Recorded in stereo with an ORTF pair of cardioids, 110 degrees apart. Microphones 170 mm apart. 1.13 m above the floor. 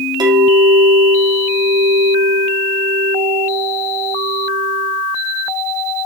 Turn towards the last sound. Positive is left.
turn(degrees=-25)